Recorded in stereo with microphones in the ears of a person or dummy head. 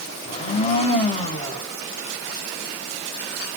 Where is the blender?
30° left (ahead or behind), 1.5 m.